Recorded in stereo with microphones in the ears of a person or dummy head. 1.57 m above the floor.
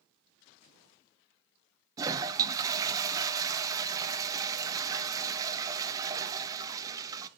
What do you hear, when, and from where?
2.0 s a toilet flushing: 20° right (ahead or behind), 0.5 m